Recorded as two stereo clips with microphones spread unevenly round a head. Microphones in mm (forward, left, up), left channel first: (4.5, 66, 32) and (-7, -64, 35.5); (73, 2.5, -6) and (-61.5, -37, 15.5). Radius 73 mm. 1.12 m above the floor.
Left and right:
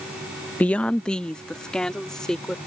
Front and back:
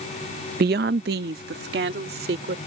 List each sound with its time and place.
0.6 s a woman speaking: 165° left; by 2.6 s 170° left